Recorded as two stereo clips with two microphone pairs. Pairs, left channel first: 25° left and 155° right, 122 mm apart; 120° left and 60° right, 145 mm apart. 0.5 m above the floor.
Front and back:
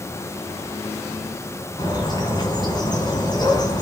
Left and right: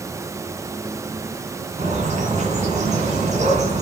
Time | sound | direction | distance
1.8 | a bird | 25° right | 2.5 m